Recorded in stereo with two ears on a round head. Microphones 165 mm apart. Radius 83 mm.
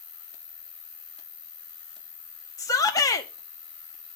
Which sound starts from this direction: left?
An insect, at 0.0 s.